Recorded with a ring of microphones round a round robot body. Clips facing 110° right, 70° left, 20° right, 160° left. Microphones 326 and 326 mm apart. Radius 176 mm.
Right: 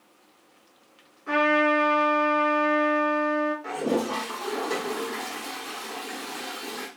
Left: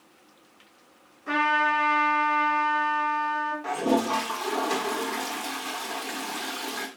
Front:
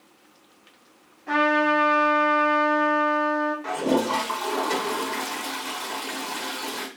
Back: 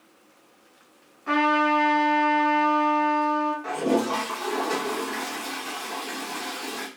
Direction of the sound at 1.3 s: 155° left.